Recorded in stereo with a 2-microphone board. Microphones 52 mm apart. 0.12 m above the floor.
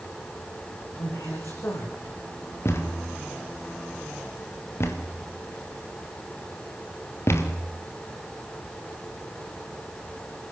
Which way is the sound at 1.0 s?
80° left.